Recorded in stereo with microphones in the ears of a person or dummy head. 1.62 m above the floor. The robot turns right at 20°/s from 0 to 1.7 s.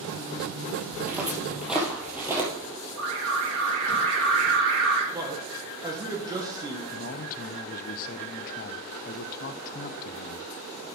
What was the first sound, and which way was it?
Footsteps, 10° right (ahead or behind).